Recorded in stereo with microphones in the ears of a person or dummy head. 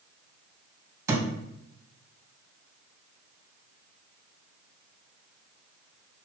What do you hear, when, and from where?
1.1 s a thud: 15° right (ahead or behind), 3 m